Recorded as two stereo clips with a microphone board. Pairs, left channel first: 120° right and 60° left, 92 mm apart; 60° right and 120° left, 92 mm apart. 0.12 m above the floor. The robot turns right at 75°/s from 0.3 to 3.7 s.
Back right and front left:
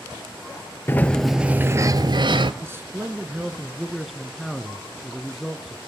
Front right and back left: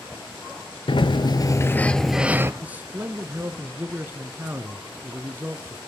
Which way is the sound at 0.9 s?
60° right.